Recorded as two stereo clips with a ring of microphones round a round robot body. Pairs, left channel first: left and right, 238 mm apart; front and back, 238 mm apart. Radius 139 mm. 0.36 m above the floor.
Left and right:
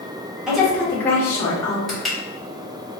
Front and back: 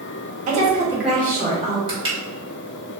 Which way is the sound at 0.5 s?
175° right.